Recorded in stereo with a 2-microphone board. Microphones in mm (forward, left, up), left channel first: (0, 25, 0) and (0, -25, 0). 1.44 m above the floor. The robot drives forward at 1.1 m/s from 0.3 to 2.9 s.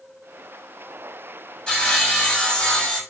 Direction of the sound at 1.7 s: 15° left (ahead or behind).